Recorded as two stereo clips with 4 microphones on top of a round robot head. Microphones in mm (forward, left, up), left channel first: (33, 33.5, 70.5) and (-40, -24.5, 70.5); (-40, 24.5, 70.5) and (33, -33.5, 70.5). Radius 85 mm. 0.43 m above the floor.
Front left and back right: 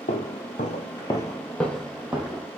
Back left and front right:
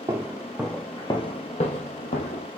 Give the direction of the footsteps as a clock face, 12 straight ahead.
11 o'clock.